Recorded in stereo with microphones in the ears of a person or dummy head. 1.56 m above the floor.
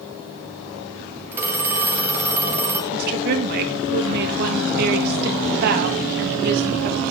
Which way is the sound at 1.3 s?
15° right (ahead or behind).